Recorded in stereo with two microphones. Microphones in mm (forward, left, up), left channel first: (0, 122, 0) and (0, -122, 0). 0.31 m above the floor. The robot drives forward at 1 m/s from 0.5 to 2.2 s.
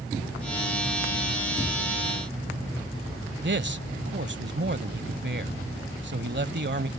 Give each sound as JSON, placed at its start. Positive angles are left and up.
{"t": 3.4, "sound": "a man speaking", "side_deg": -45}